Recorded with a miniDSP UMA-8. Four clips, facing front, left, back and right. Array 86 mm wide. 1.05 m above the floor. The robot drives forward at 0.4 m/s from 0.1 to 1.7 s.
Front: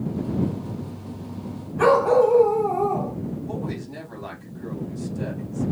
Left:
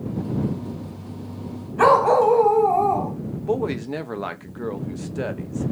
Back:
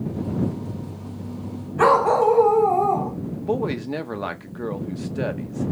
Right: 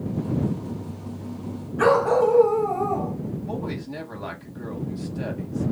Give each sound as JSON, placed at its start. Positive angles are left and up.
{"t": 1.8, "sound": "a dog barking", "azimuth_deg": 120, "distance_m": 1.9}
{"t": 3.4, "sound": "a woman speaking", "azimuth_deg": 140, "distance_m": 0.8}